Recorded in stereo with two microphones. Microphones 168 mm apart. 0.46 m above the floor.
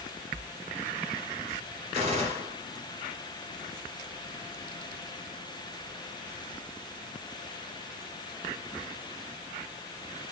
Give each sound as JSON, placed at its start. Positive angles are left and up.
{"t": 1.9, "sound": "a gunshot", "side_deg": -40, "distance_m": 1.4}